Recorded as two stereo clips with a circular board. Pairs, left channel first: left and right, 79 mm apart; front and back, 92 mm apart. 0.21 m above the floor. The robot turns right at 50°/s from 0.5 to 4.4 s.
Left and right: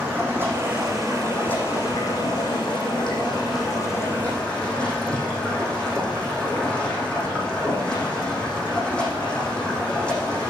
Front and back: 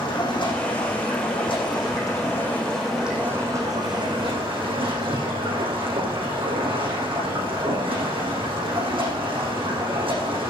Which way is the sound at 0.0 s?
30° right.